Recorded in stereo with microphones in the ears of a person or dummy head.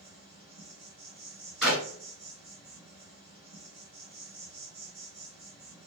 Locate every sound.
0.0 s an insect: 20° right (ahead or behind), 1.1 m
1.6 s a clap: centre (ahead or behind), 1.3 m